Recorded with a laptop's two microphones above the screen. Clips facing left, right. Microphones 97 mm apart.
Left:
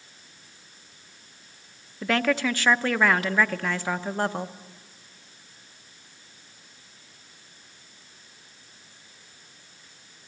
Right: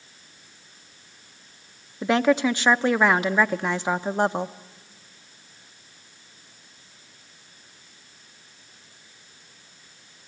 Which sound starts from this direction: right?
A woman speaking, at 2.0 s.